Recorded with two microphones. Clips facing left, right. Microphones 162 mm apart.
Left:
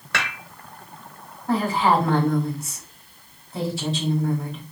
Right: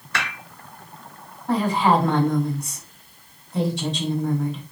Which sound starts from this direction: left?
Dishes clattering, at 0.1 s.